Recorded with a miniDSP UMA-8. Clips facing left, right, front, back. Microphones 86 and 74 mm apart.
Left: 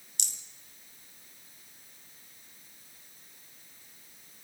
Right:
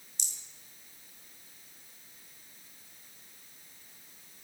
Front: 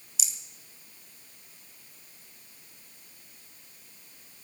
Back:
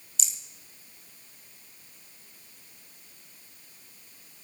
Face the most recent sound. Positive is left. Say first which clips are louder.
# left 3 dB, back 1 dB
turn(degrees=85)